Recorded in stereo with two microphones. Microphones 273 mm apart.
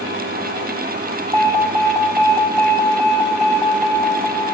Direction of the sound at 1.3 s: 20° right (ahead or behind).